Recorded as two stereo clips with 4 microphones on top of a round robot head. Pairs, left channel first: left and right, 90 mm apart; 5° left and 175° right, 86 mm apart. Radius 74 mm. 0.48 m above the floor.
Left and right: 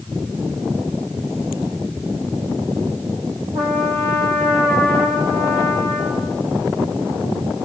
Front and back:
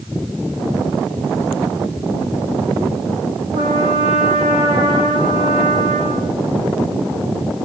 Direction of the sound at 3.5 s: 150° right.